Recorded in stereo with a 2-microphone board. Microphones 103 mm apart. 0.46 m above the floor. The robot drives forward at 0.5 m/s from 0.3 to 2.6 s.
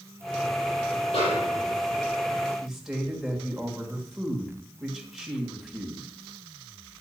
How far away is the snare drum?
About 4 m.